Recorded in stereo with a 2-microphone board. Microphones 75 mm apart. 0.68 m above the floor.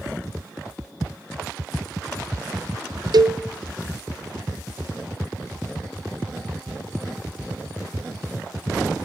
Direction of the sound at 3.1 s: 65° right (ahead or behind).